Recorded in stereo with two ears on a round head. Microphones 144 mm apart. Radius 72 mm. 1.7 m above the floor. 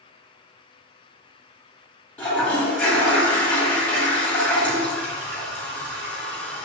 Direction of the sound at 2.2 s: 10° left (ahead or behind).